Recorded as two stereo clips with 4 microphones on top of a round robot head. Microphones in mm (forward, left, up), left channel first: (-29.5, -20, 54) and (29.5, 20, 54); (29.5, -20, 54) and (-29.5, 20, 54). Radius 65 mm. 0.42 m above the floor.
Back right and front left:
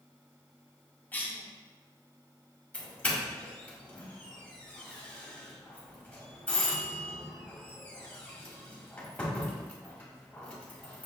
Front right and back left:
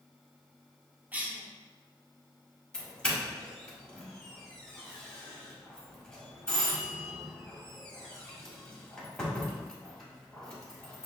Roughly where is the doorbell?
Right.